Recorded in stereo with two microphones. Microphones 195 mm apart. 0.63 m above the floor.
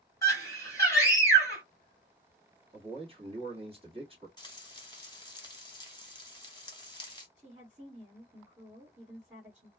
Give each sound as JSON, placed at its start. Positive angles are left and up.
{"t": 0.2, "sound": "a scream", "side_deg": 15, "distance_m": 1.7}
{"t": 2.7, "sound": "a man speaking", "side_deg": -30, "distance_m": 1.3}
{"t": 4.4, "sound": "frying", "side_deg": 25, "distance_m": 1.2}
{"t": 7.4, "sound": "a woman speaking", "side_deg": -10, "distance_m": 1.8}